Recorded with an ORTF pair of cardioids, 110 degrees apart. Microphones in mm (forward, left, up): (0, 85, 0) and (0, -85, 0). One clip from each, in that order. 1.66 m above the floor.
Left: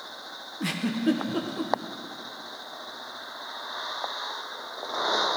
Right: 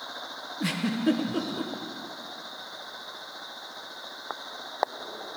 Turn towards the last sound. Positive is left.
turn(degrees=-5)